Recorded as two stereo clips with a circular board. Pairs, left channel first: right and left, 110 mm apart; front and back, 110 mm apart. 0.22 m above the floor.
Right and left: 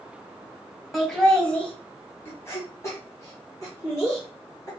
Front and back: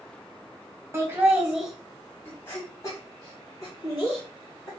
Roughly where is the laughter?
Behind.